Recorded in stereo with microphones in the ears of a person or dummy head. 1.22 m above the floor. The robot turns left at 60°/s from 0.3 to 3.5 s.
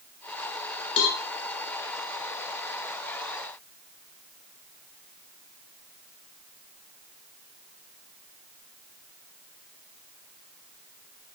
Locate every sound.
1.0 s a cowbell: 70° left (ahead or behind), 3 m; by 1.2 s 55° left (ahead or behind), 3 m